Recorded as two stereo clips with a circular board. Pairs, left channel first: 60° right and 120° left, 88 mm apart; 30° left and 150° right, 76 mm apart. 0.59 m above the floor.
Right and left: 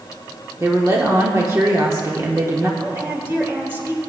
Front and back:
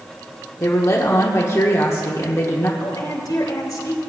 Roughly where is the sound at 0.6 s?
Left.